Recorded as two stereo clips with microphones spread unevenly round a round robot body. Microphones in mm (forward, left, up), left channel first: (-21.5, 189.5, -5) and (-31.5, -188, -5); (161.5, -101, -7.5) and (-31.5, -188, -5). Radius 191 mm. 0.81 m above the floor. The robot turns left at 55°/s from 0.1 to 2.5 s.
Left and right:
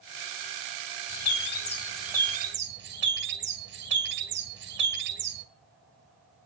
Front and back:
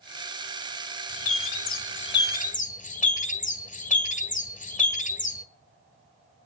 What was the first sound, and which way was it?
A bird, 50° left.